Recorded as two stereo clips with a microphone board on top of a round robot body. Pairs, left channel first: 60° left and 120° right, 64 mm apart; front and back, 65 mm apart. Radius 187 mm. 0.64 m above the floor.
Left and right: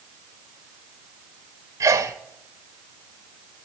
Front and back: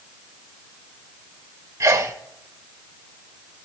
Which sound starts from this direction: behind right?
A sneeze, at 1.8 s.